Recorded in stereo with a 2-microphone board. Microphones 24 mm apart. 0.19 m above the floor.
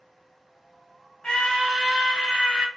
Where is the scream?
20° left (ahead or behind), 1.5 m; by 2.7 s 30° right (ahead or behind), 1.6 m.